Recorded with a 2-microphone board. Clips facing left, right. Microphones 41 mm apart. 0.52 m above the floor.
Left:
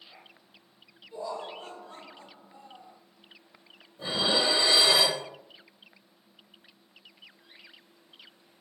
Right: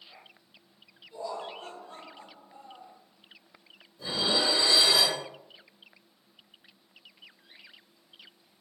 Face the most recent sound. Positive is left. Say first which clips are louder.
# left 1 dB
turn(degrees=35)  # may be behind; listen again after turning